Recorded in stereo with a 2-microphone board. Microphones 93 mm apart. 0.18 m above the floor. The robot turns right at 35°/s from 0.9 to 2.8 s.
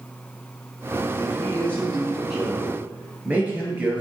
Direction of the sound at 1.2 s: 145° left.